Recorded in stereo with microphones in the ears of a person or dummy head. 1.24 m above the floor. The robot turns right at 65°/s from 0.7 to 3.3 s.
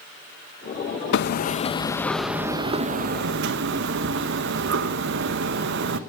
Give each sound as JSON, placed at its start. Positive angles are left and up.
{"t": 1.1, "sound": "hammering", "azimuth_deg": 110, "distance_m": 0.8}